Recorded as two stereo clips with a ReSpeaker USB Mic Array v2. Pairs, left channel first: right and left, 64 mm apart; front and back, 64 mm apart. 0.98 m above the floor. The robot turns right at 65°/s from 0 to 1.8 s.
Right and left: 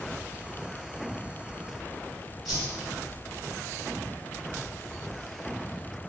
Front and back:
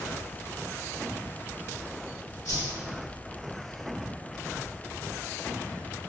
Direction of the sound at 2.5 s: Straight ahead.